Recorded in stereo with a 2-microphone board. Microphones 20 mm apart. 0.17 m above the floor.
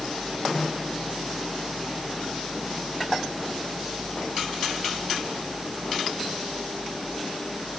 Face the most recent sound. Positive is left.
No sound to turn to.